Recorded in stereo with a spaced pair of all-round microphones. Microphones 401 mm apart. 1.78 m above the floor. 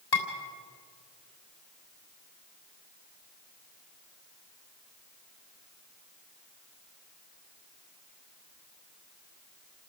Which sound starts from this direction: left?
Dishes clattering, at 0.1 s.